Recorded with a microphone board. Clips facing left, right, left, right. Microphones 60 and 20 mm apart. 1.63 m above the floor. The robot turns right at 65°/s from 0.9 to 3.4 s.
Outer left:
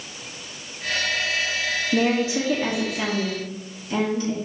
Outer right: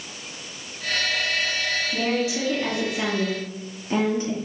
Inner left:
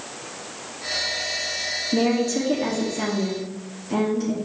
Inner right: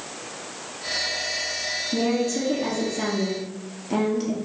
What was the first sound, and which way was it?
A woman speaking, 120° left.